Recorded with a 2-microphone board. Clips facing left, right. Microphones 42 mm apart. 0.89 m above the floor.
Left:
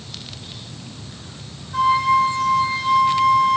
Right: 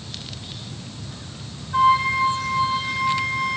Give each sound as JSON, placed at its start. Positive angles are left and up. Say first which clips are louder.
{"t": 1.7, "sound": "a flute", "louder": "left 1 dB", "side_deg": -20, "distance_m": 9.0}